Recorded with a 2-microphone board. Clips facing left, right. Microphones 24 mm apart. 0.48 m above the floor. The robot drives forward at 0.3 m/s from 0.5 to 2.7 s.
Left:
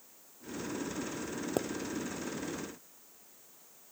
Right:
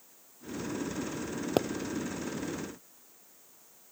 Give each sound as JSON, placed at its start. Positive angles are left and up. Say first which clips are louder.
{"t": 1.6, "sound": "a pop", "louder": "right 6 dB", "side_deg": -55}